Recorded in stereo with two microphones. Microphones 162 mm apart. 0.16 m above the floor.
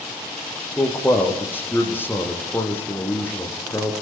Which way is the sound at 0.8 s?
10° left (ahead or behind).